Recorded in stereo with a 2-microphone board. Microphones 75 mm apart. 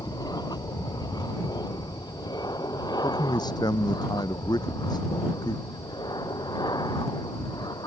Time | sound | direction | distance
0.0 | an aircraft | 60° left (ahead or behind) | ?
3.0 | a man speaking | 70° left (ahead or behind) | ?